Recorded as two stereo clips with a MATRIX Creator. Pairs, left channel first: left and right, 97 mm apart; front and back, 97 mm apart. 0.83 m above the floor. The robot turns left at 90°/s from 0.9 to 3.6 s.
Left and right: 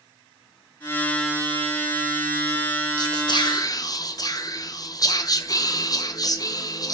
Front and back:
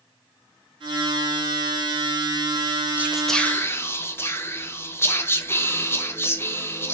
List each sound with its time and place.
3.0 s whispering: 115° left, 0.5 m; by 6.9 s 55° left, 0.5 m